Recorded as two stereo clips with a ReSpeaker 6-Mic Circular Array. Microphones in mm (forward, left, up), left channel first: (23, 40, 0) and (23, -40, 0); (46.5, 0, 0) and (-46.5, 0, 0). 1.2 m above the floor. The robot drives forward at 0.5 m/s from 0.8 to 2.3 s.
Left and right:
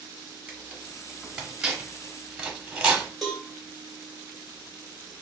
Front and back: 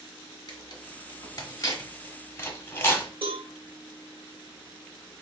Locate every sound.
0.5 s tearing paper: 10° right, 1.6 m; by 3.1 s 25° right, 1.1 m
3.2 s a cowbell: straight behind, 1.3 m